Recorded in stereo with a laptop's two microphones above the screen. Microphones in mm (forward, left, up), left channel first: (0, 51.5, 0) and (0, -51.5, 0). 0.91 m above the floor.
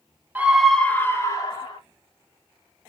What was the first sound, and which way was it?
A scream, 15° right (ahead or behind).